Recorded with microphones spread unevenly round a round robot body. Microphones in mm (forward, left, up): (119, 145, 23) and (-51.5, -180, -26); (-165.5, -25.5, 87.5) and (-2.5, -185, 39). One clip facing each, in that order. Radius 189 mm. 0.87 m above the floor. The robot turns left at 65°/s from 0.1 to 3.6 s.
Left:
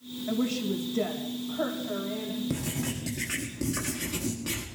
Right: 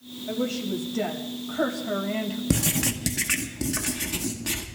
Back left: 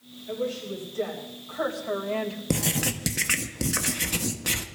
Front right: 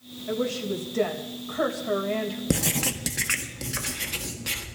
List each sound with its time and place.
0.3 s a woman speaking: 5° left, 3.5 m; by 2.4 s 130° right, 3.5 m
2.5 s writing: 120° right, 1.6 m; by 4.6 s 170° left, 1.6 m